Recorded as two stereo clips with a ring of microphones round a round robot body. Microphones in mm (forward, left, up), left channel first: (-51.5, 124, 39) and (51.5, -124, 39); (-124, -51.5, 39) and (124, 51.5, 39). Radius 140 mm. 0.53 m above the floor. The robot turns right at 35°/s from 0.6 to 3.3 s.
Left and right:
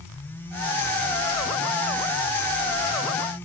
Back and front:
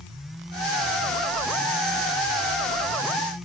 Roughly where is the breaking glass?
No breaking glass in this recording.